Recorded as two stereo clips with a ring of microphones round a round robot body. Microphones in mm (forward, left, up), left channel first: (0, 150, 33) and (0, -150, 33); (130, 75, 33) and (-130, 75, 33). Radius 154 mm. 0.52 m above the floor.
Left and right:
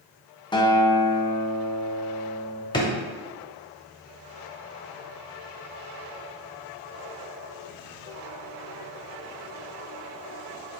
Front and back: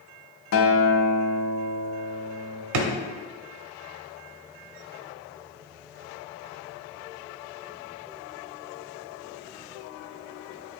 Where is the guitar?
15° left, 0.6 m.